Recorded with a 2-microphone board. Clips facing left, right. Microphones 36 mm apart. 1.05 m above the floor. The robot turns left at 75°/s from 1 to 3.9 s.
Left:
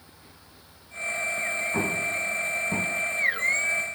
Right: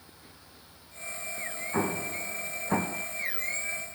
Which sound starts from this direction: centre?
An explosion, at 1.7 s.